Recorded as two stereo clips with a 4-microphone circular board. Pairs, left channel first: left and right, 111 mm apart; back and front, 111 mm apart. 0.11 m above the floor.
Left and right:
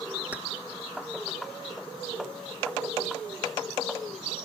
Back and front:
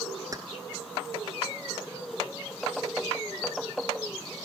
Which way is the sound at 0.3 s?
25° right.